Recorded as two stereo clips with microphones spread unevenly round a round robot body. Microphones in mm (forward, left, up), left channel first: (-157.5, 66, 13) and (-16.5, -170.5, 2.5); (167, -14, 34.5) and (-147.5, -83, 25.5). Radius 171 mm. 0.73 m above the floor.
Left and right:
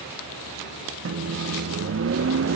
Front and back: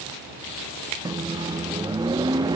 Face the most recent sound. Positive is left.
turn(degrees=-90)